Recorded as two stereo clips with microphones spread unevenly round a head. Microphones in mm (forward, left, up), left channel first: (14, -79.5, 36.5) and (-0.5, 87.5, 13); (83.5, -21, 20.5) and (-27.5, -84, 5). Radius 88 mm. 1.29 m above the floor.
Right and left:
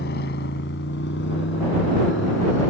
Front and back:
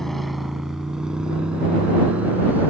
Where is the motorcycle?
55° right; by 2.7 s 70° right.